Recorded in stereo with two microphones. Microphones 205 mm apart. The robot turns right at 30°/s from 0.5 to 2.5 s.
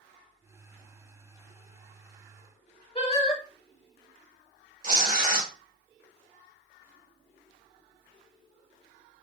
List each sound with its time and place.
3.0 s singing: 30° left (ahead or behind), 1.1 m
4.8 s tearing paper: 40° right (ahead or behind), 1.3 m